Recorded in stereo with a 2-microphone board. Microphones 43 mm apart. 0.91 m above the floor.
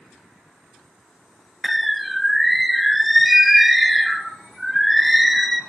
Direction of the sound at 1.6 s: Centre (ahead or behind).